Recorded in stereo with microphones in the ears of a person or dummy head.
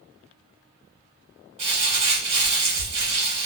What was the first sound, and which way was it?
Crumpling, 30° right (ahead or behind).